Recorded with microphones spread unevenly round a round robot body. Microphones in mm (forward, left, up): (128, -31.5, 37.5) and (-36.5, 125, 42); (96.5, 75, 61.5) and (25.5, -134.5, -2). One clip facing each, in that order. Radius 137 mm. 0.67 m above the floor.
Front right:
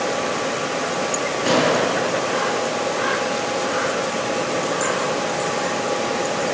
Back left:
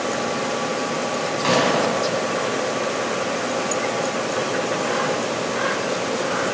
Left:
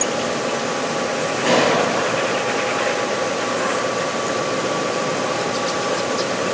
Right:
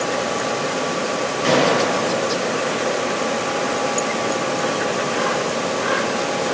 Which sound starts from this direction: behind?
A gunshot, at 1.4 s.